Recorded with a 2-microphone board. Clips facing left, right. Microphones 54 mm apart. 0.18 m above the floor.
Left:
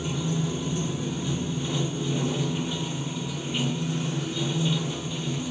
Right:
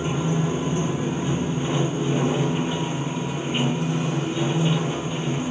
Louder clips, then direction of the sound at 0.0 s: Right 5 dB; 35° right (ahead or behind).